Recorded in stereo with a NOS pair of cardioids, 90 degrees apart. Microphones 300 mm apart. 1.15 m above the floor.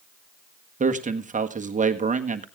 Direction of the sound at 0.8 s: 25° right.